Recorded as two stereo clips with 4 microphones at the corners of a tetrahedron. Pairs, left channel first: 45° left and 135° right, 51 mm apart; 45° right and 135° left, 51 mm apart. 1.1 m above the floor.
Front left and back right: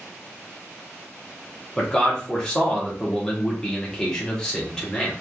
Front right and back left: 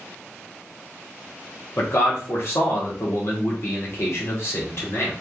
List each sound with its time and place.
1.8 s a man speaking: 30° right, 1.0 m